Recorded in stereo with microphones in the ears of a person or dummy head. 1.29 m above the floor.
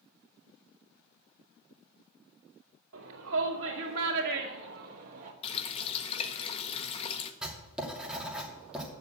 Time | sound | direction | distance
2.9 | a shout | 80° right | 2 m
5.4 | a running tap | 30° left (ahead or behind) | 1.0 m
7.4 | writing | 5° right (ahead or behind) | 2.5 m